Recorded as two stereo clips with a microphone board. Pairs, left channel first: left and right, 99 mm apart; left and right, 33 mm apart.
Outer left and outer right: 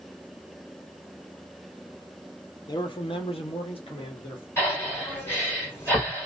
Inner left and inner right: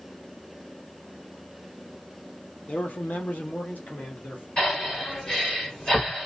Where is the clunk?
I don't hear a clunk.